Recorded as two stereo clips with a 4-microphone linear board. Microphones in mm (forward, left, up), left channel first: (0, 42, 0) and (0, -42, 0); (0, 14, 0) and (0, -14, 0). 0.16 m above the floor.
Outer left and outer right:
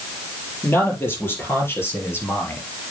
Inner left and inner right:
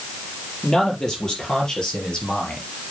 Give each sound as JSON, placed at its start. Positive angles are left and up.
{"t": 0.6, "sound": "a man speaking", "side_deg": 25, "distance_m": 5.0}